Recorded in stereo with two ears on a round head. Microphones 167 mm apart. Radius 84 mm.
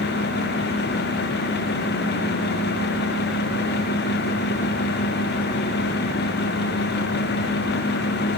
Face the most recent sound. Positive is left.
No sound to turn to.